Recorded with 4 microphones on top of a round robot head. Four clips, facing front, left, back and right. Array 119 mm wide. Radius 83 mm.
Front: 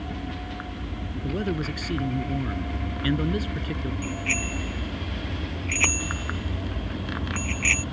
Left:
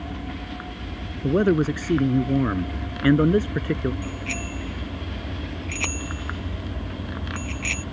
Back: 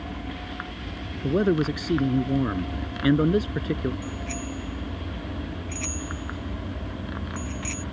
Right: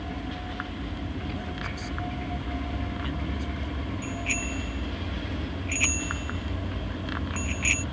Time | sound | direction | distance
1.2 | a man speaking | 115° left | ?
4.0 | a bicycle bell | 30° left | ?